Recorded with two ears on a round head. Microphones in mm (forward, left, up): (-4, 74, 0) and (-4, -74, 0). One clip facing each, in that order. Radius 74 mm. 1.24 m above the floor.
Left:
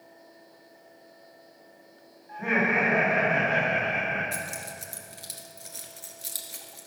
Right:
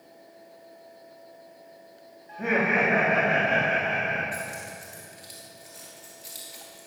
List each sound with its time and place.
2.3 s laughter: 40° right (ahead or behind), 2.0 m; by 4.2 s 25° right (ahead or behind), 2.5 m
4.3 s keys jangling: 65° left (ahead or behind), 1.7 m